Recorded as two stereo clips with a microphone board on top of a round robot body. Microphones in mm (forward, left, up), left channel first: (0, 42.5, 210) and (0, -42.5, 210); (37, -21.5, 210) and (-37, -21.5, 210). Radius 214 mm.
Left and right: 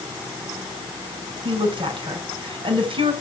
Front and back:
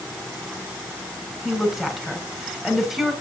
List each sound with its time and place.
1.4 s a woman speaking: 95° right, 6.5 m